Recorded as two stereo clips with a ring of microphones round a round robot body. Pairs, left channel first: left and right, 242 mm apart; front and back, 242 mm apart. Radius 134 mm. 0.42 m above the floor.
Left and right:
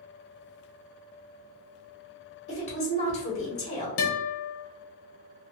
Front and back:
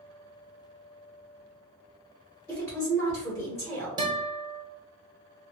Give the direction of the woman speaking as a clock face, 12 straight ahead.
10 o'clock.